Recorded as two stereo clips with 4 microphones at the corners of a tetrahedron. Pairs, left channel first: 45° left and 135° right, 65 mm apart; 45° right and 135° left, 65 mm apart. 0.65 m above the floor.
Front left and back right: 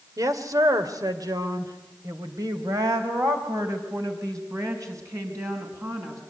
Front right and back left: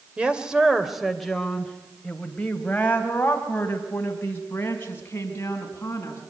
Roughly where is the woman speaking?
Behind right.